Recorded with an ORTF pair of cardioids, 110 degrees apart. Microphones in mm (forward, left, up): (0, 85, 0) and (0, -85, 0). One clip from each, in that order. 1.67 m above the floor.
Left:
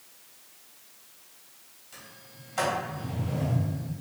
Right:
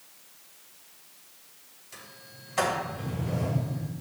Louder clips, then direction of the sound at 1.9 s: Right 2 dB; 25° right.